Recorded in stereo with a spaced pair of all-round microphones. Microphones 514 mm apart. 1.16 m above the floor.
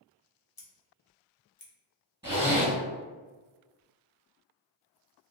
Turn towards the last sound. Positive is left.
turn(degrees=-5)  # may be behind; listen again after turning